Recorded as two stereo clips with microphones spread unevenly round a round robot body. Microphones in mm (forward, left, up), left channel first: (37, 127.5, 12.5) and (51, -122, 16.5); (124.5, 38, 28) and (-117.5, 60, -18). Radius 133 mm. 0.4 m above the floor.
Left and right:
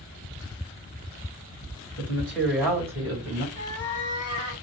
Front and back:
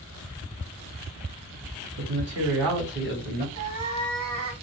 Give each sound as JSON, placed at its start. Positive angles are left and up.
{"t": 2.0, "sound": "a man speaking", "azimuth_deg": 175, "distance_m": 2.5}
{"t": 3.5, "sound": "a cat meowing", "azimuth_deg": 160, "distance_m": 1.7}